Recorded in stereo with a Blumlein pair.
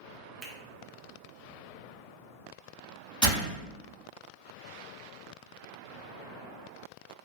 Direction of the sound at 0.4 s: 25° right.